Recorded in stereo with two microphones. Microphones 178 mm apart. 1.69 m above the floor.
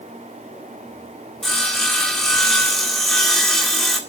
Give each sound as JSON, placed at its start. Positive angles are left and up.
{"t": 1.4, "sound": "sawing", "side_deg": 0, "distance_m": 1.9}